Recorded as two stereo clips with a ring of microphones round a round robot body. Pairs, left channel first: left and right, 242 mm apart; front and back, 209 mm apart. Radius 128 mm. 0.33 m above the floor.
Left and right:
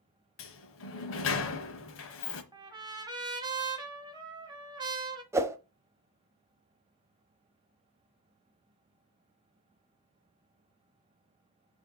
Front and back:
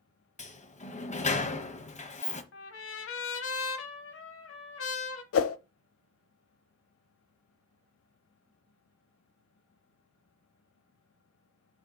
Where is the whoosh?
10° right, 0.6 m.